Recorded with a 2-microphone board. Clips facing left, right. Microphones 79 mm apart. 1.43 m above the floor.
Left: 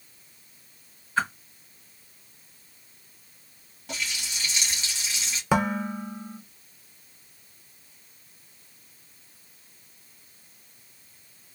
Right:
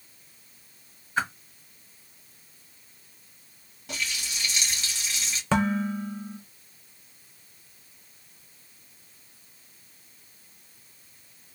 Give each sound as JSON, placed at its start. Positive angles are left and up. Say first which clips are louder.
{"t": 1.2, "sound": "a whoosh", "louder": "left 2 dB", "side_deg": -20, "distance_m": 1.8}
{"t": 3.9, "sound": "a running tap", "louder": "even", "side_deg": 0, "distance_m": 1.5}
{"t": 5.5, "sound": "dishes clattering", "louder": "even", "side_deg": 10, "distance_m": 0.6}